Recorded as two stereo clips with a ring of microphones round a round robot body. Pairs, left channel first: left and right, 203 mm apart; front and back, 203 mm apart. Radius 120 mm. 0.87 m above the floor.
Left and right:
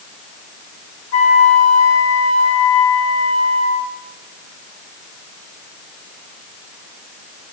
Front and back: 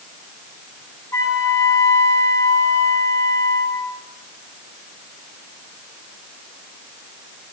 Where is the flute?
75° left, 2 m.